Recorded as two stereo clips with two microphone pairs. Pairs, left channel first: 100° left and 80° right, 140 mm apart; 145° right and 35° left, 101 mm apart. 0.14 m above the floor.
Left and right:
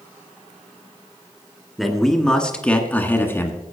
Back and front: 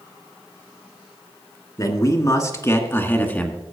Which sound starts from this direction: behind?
A man speaking, at 1.8 s.